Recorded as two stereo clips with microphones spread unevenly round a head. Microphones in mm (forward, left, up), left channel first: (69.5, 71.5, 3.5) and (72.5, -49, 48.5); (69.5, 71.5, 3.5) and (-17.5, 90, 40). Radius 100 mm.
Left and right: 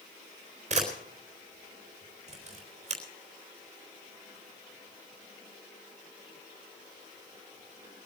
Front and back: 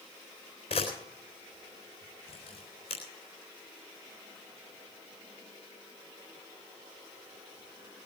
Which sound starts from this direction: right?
A camera shutter, at 0.7 s.